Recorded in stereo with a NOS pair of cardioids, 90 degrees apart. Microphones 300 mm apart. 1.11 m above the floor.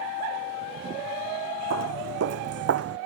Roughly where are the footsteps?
Ahead right.